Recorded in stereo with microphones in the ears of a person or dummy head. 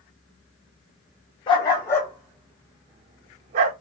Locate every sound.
1.5 s a dog barking: 30° left (ahead or behind), 0.9 m; by 3.7 s 45° right (ahead or behind), 1.0 m